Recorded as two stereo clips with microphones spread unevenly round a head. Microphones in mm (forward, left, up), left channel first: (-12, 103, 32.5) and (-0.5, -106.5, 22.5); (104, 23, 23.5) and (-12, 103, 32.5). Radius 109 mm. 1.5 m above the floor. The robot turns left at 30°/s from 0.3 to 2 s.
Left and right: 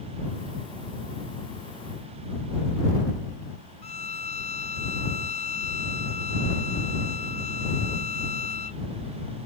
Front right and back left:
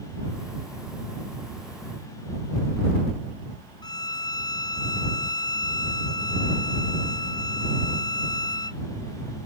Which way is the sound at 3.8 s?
30° left.